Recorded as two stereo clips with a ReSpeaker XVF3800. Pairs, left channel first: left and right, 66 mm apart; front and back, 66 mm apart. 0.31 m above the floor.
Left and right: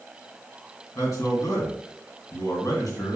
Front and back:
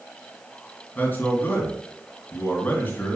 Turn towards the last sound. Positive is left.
turn(degrees=65)